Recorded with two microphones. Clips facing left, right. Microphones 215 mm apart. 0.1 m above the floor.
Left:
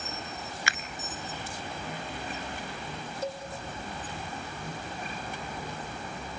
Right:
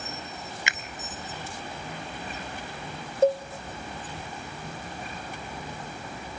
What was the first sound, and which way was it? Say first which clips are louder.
A finger snap: even; 20° right (ahead or behind).